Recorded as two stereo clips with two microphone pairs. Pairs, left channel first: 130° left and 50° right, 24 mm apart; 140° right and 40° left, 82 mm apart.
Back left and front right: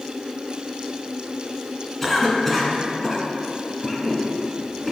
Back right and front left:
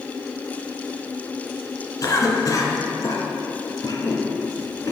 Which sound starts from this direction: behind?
A cough, at 2.0 s.